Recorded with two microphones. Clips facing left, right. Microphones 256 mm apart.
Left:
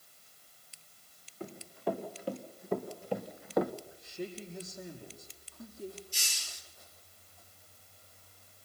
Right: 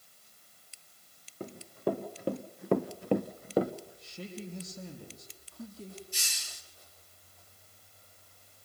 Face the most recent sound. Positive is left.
turn(degrees=-65)  # may be behind; listen again after turning